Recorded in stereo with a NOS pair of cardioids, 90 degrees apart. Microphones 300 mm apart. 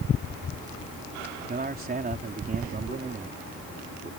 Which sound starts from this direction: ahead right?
A man speaking, at 1.5 s.